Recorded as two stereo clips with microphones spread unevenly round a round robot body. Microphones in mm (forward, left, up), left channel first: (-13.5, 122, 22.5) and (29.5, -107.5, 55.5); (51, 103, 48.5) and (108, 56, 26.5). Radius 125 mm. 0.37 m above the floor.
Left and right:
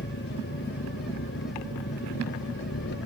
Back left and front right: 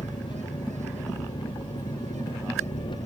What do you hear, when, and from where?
0.0 s an engine running: 150° left